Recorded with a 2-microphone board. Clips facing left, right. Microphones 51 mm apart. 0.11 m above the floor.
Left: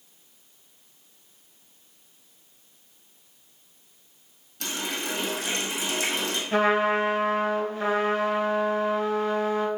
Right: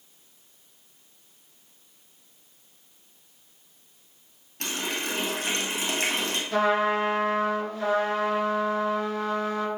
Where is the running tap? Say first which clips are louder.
Right 1 dB; 50° right (ahead or behind), 1.7 m.